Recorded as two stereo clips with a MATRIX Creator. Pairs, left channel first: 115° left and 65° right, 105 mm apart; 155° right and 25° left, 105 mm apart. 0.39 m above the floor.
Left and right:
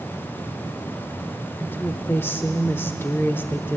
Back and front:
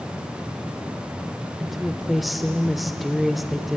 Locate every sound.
1.6 s a woman speaking: 110° left, 1.0 m